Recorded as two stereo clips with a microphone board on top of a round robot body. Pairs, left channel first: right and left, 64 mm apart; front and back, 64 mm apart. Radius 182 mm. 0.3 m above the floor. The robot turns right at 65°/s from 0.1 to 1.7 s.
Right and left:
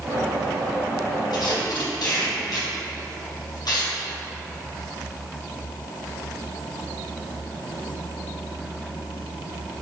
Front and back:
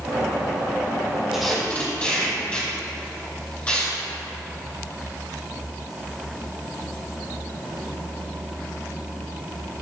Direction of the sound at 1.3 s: 95° right.